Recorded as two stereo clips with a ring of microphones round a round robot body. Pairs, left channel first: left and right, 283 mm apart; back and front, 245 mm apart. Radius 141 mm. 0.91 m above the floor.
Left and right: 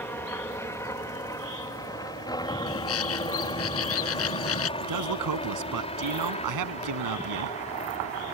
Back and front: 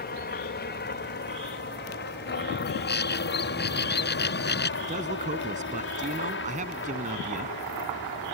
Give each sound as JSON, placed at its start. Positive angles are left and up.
{"t": 0.0, "sound": "a helicopter", "azimuth_deg": 170}
{"t": 2.7, "sound": "a bird", "azimuth_deg": 135}
{"t": 4.8, "sound": "a man speaking", "azimuth_deg": -65}